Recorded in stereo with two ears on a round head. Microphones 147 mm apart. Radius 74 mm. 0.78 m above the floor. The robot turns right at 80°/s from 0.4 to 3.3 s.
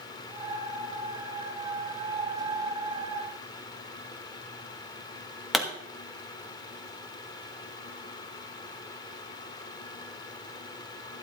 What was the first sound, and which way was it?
A pop, centre (ahead or behind).